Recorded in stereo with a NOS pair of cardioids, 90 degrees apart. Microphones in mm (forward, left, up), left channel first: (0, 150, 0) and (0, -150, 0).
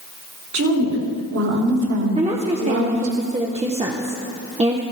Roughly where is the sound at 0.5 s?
Ahead right.